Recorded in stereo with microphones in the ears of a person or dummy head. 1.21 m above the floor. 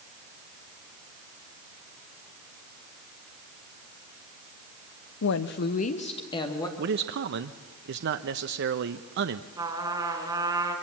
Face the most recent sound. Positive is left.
turn(degrees=-20)  # may be behind; listen again after turning